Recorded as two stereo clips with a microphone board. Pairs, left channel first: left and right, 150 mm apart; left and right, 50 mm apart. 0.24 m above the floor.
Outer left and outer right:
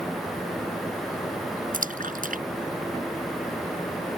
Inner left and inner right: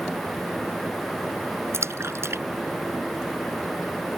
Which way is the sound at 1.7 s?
65° right (ahead or behind).